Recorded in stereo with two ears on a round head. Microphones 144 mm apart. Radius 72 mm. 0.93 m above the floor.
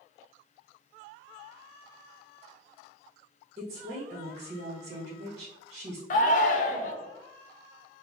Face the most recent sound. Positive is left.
turn(degrees=50)  # may be behind; listen again after turning